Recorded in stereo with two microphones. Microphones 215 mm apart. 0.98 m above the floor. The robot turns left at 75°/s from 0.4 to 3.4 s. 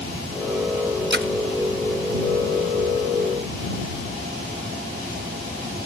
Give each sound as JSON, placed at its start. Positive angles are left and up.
{"t": 1.1, "sound": "a splash", "side_deg": -55}